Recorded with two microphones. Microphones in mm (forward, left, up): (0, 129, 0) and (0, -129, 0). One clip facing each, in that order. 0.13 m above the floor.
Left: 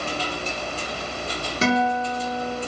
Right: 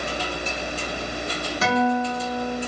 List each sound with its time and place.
1.6 s a guitar: 30° left (ahead or behind), 0.7 m